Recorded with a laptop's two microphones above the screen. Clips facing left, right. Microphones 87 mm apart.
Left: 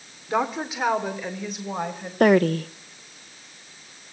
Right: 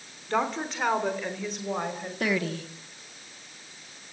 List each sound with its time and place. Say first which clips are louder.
0.3 s a woman speaking: left 3 dB; 10° left (ahead or behind), 2 m; by 2.1 s centre (ahead or behind), 4 m
2.2 s a woman speaking: left 12 dB; 50° left (ahead or behind), 0.9 m